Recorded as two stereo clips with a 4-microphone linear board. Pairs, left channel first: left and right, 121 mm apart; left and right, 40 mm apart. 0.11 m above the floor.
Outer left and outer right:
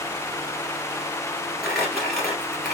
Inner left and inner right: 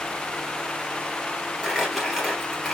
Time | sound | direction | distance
1.6 | crumpling | centre (ahead or behind) | 2 m